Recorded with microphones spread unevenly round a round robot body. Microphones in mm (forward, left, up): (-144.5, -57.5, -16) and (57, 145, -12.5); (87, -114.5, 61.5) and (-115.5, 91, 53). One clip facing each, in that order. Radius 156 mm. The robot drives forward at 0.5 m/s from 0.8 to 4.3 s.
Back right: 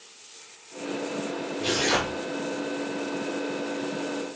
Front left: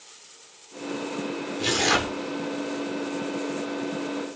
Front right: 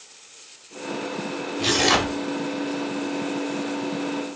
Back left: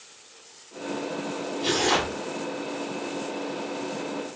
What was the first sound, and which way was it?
Tearing paper, 10° left.